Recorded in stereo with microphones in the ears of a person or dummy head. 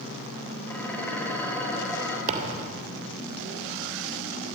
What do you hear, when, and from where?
0.7 s dishes clattering: 10° left (ahead or behind), 5 m
2.3 s a thud: 40° right (ahead or behind), 3 m